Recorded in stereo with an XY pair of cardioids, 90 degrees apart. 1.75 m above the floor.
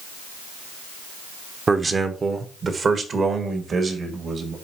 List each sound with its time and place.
1.7 s a man speaking: 35° right, 1.0 m; by 4.5 s 55° right, 2.5 m